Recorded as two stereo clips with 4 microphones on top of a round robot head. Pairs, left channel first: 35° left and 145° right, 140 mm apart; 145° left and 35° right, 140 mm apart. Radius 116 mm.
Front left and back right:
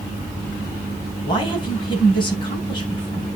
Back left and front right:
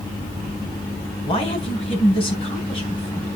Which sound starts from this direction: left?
A man speaking, at 1.2 s.